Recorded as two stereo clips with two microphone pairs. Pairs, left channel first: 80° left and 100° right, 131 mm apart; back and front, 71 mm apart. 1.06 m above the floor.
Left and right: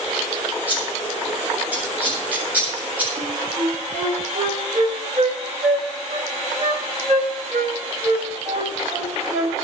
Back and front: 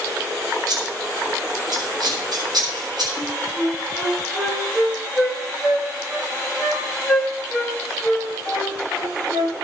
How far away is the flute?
About 3.5 m.